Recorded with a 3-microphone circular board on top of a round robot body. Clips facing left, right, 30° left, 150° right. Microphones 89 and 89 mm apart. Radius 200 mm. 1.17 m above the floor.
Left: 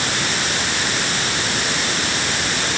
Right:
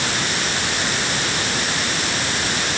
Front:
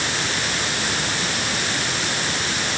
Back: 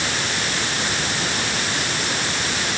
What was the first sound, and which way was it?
Only background noise.